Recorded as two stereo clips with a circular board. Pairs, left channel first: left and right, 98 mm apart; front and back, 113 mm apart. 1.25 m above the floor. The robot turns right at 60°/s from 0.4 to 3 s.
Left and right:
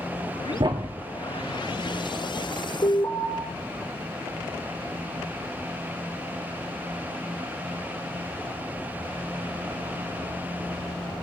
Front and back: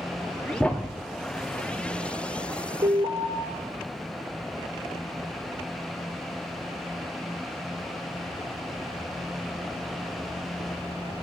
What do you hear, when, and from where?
0.6 s a thud: 80° right, 1.0 m; by 1.0 s 55° right, 1.0 m
2.8 s an alarm: 135° left, 6 m; by 3.3 s 145° left, 6 m